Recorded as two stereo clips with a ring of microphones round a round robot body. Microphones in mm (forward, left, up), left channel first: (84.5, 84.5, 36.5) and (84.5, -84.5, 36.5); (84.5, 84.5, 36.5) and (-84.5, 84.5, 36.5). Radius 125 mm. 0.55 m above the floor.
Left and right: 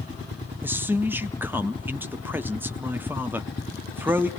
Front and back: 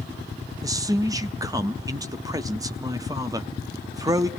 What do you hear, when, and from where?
0.6 s a man speaking: 150° right, 0.6 m